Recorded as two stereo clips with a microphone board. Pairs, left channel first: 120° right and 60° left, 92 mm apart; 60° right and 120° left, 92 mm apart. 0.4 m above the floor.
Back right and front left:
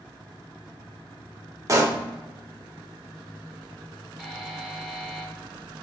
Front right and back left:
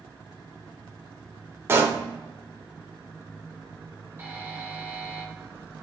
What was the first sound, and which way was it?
A pop, 80° left.